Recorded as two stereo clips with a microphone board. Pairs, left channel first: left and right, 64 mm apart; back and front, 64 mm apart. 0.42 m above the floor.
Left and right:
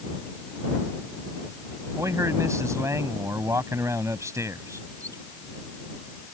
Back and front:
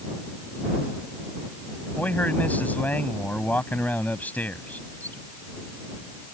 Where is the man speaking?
120° right.